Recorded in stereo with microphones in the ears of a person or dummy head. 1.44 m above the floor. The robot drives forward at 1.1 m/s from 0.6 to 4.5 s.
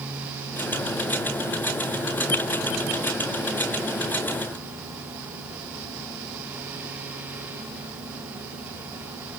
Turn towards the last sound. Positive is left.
No sound to turn to.